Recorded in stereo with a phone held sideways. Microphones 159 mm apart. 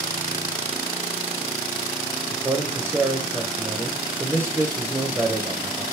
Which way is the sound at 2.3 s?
15° right (ahead or behind).